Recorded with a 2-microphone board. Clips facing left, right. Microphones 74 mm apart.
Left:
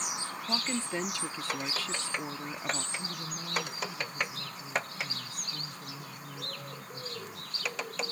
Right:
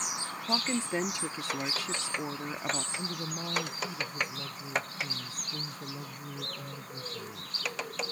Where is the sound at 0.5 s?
20° right (ahead or behind).